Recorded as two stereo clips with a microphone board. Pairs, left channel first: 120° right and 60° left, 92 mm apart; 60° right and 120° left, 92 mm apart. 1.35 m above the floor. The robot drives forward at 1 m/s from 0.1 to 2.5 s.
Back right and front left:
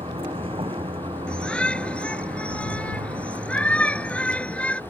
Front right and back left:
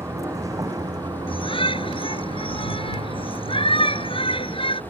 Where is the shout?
40° right; by 4.8 s 45° right.